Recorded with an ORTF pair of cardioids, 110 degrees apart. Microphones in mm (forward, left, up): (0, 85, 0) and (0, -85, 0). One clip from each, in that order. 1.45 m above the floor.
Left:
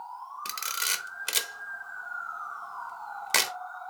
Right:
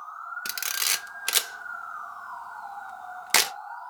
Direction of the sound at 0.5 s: 20° right.